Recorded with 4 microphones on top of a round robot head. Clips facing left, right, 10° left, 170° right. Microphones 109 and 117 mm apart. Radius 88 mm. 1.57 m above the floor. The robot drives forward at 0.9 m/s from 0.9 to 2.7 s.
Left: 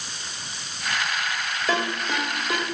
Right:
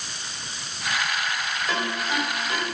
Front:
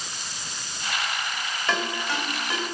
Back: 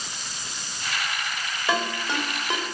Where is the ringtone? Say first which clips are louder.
Left 3 dB, back 2 dB; 105° left, 3 m; by 2.6 s 120° left, 3.5 m.